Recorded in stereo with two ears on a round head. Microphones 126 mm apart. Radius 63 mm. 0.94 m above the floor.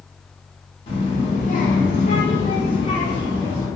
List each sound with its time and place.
0.9 s a child speaking: 40° left (ahead or behind), 0.9 m; by 3.7 s 10° left (ahead or behind), 0.9 m